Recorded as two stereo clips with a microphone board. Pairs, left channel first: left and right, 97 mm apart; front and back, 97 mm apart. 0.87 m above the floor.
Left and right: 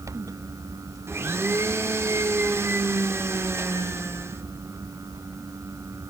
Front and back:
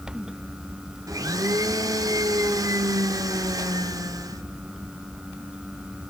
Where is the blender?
145° right, 0.6 m.